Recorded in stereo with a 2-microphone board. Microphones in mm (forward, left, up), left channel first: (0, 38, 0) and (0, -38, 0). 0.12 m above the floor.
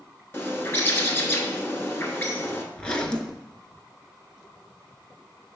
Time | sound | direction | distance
0.3 | a bird | 30° left (ahead or behind) | 0.8 m
2.7 | a zipper | 10° left (ahead or behind) | 0.6 m